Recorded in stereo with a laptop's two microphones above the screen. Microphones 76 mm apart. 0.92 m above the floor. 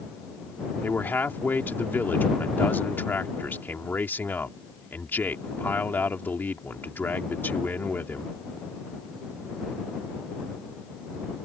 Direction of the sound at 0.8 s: 25° left (ahead or behind).